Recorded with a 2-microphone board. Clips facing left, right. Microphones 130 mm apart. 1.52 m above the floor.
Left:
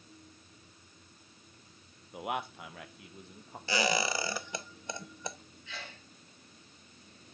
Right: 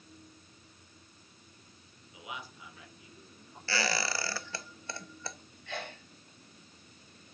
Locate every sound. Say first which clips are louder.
2.1 s a man speaking: left 9 dB; 60° left (ahead or behind), 0.9 m; by 3.6 s 75° left (ahead or behind), 2 m
3.7 s a squeak: left 3 dB; 15° left (ahead or behind), 0.9 m
5.7 s a sneeze: right 7 dB; 60° right (ahead or behind), 2.5 m